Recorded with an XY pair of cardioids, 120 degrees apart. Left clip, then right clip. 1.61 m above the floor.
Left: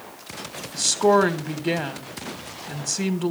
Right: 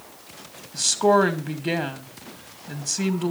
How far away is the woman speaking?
About 2.5 m.